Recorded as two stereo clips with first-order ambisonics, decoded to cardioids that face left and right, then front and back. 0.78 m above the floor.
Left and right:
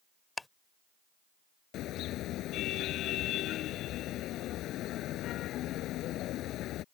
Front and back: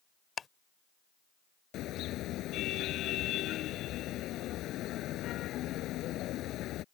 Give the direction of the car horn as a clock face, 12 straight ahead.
10 o'clock.